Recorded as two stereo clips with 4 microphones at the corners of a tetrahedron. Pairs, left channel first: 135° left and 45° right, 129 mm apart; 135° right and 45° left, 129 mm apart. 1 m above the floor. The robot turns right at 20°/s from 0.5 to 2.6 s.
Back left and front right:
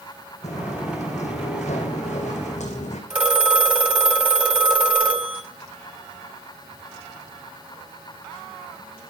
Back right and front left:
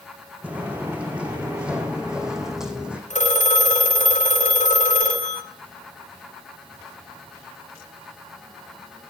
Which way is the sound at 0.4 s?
125° left.